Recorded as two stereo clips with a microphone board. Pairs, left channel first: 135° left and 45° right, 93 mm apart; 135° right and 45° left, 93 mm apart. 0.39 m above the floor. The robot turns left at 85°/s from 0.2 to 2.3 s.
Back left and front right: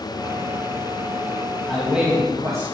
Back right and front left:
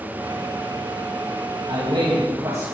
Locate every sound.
1.7 s a man speaking: 60° left, 3 m; by 2.6 s 5° left, 3 m